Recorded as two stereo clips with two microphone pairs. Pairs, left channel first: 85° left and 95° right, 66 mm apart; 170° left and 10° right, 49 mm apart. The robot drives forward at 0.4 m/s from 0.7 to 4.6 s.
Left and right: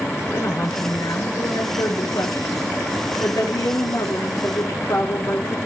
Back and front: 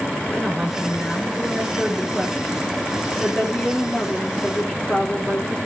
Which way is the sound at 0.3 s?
80° left.